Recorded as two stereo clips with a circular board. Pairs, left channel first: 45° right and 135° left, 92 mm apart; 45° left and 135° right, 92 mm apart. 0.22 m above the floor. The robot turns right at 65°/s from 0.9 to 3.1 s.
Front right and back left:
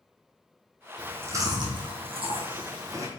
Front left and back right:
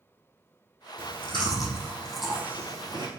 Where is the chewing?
55° left, 3 m; by 3.1 s 165° right, 3 m.